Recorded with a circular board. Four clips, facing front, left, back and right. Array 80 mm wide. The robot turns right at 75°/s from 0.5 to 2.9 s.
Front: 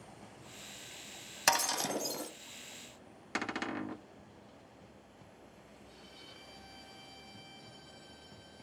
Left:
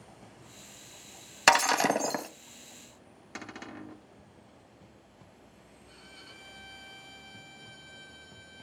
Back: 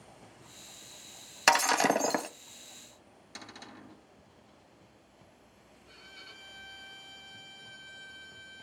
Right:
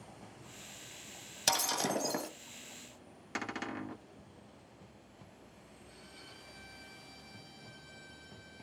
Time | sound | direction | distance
1.5 | breaking glass | 105° left | 1.0 m
3.4 | a cupboard door | 15° right | 0.9 m
5.9 | a violin | 140° left | 3.5 m